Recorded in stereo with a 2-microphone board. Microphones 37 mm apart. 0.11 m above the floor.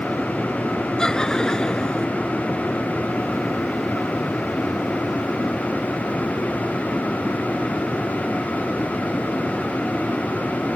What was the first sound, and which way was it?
Laughter, 20° left (ahead or behind).